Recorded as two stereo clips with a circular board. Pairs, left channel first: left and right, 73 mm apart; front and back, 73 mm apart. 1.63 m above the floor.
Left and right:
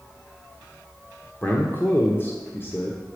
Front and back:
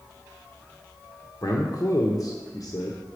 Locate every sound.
1.4 s a man speaking: 30° left, 0.8 m